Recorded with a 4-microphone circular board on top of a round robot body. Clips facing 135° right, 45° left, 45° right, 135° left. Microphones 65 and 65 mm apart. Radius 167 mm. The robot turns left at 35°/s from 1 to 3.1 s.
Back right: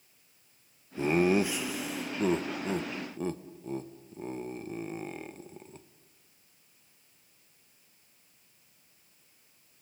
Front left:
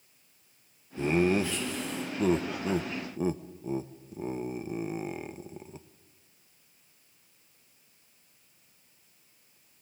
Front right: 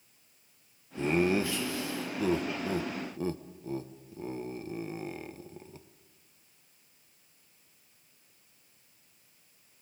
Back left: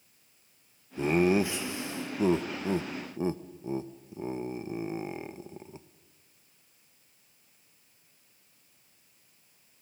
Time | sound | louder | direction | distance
1.0 | laughter | even, back left 3 dB | straight behind | 1.2 m